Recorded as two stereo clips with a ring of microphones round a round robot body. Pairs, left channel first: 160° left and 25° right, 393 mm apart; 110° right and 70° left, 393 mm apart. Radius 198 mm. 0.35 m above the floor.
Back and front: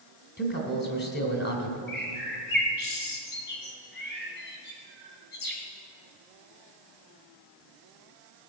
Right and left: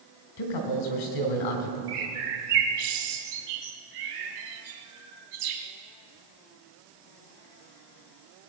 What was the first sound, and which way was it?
A man speaking, 140° right.